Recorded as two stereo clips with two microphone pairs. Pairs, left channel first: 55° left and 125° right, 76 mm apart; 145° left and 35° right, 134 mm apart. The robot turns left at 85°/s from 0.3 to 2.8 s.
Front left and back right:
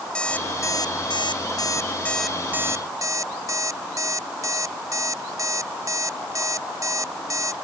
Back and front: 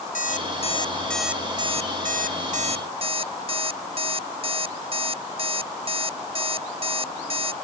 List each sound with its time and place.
0.1 s an alarm clock: 135° left; by 7.5 s 80° right